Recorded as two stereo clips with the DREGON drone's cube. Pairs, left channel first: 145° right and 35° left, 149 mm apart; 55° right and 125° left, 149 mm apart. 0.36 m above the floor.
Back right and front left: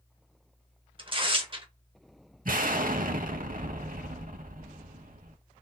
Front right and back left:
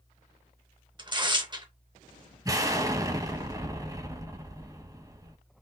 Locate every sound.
1.0 s tearing paper: 75° left, 0.7 m
2.5 s an explosion: 55° left, 0.6 m